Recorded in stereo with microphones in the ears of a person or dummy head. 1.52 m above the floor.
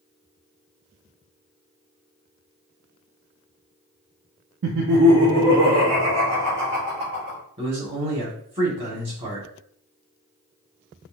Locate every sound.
4.6 s laughter: 65° right (ahead or behind), 0.6 m; by 7.4 s 60° right (ahead or behind), 3 m
7.6 s a man speaking: 25° right (ahead or behind), 1.4 m